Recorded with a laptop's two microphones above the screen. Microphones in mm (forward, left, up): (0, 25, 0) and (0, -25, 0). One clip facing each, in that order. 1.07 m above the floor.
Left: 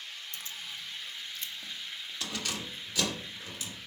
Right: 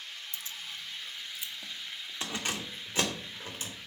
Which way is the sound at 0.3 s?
50° left (ahead or behind).